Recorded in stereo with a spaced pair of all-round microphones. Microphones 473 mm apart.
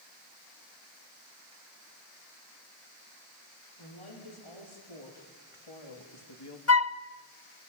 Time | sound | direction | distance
3.8 | a woman speaking | 80° left | 5 m
6.7 | a flute | 30° left (ahead or behind) | 0.7 m